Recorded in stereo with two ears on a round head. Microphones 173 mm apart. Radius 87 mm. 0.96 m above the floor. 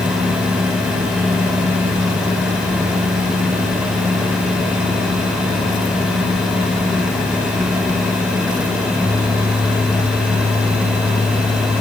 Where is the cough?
I don't hear a cough.